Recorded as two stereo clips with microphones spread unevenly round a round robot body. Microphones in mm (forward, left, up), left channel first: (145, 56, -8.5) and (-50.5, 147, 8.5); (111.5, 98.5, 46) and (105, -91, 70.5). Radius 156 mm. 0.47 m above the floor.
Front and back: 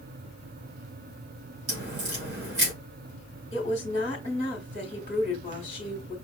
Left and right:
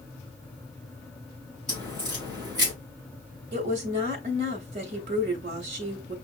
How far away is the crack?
About 4 m.